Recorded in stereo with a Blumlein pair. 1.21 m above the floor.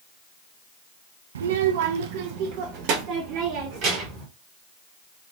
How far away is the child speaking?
About 0.5 m.